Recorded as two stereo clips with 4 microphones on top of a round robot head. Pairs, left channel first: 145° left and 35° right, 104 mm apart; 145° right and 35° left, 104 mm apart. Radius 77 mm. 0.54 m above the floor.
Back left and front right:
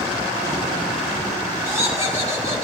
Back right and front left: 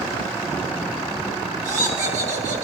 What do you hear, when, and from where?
1.6 s laughter: 30° left, 5.5 m